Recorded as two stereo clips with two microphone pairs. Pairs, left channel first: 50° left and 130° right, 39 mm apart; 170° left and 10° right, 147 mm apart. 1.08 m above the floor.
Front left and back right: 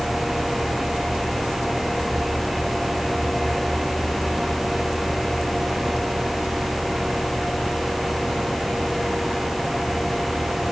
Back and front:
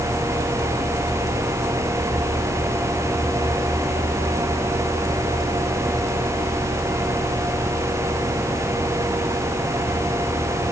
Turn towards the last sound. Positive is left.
No sound to turn to.